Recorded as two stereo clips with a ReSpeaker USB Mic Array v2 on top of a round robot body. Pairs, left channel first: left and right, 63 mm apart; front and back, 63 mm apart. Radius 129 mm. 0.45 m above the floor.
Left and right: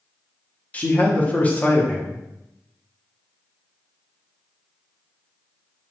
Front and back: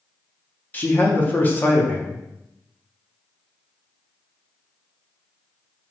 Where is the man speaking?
40° left, 0.8 m.